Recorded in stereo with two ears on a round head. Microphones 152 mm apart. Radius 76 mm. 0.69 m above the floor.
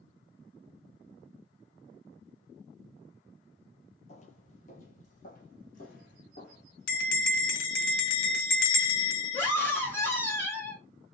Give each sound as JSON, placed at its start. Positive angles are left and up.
{"t": 4.1, "sound": "footsteps", "side_deg": 40, "distance_m": 0.9}
{"t": 6.9, "sound": "a bell", "side_deg": 75, "distance_m": 0.8}
{"t": 9.3, "sound": "a scream", "side_deg": 10, "distance_m": 1.7}